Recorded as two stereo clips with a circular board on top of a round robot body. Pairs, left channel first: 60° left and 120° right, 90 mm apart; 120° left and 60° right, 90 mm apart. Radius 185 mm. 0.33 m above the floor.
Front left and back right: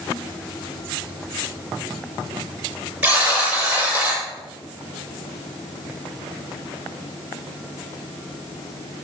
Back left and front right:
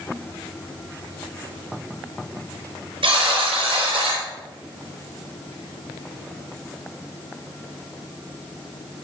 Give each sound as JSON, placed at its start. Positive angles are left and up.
{"t": 3.0, "sound": "a buzzer", "azimuth_deg": -45, "distance_m": 5.5}